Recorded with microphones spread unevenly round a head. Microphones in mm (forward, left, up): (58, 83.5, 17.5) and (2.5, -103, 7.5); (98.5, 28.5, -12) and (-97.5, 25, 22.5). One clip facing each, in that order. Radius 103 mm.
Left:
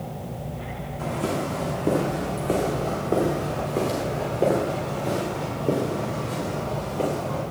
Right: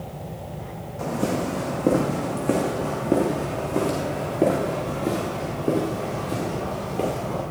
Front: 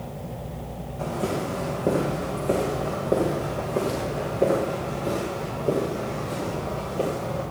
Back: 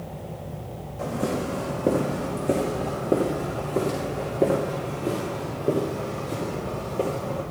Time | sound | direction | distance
1.0 | footsteps | 110° right | 4 m